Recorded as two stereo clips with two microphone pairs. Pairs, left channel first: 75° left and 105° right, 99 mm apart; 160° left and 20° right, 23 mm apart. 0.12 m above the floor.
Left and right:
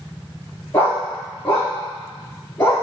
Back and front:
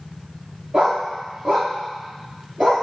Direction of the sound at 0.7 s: 5° left.